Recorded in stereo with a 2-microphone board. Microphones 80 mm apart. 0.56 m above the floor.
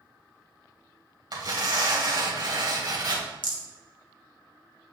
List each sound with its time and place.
1.3 s tearing paper: 55° right (ahead or behind), 1.9 m
3.4 s a rattle: 70° left (ahead or behind), 1.9 m